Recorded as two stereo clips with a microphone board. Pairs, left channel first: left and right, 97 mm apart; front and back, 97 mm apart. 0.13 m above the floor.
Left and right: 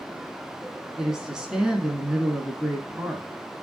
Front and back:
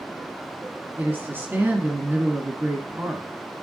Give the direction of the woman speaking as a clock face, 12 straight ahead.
5 o'clock.